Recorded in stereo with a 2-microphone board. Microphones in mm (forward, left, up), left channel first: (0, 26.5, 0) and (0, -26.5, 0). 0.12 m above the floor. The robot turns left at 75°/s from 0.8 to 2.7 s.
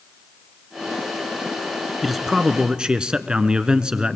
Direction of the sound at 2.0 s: Centre (ahead or behind).